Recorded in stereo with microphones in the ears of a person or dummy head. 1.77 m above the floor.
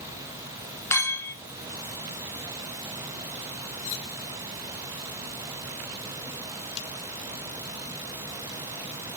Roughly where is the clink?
Centre.